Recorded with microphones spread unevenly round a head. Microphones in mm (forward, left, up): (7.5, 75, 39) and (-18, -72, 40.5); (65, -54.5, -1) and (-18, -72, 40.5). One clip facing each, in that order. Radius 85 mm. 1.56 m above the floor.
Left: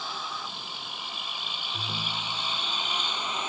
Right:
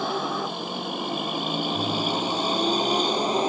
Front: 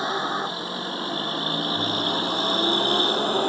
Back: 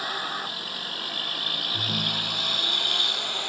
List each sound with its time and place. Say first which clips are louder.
0.0 s a vehicle: right 11 dB, front 6 dB; 55° right; by 3.5 s 40° right
1.7 s a ringtone: right 12 dB, front 4 dB; straight behind